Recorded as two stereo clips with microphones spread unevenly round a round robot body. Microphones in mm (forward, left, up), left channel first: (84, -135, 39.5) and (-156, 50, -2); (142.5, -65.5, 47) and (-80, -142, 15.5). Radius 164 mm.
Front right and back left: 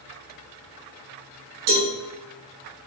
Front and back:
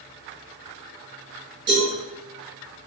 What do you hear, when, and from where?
1.7 s a cowbell: 125° left, 5 m